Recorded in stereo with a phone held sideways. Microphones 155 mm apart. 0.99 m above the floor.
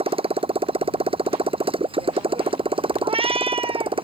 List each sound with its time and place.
0.0 s a motorcycle: 35° right (ahead or behind)
3.0 s a cat meowing: 35° right (ahead or behind)